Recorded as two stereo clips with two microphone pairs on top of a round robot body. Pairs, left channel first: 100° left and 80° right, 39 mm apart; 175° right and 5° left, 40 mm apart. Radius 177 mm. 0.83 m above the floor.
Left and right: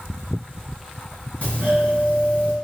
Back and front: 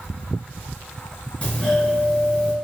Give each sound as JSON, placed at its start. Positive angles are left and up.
{"t": 1.4, "sound": "a doorbell", "azimuth_deg": 135, "distance_m": 2.0}